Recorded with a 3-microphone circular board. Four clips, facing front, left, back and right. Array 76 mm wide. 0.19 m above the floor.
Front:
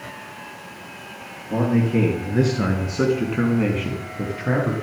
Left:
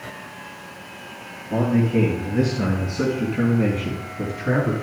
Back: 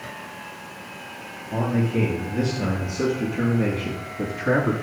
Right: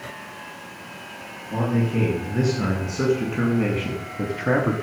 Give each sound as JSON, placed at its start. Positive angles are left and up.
{"t": 1.5, "sound": "a man speaking", "azimuth_deg": 5, "distance_m": 4.0}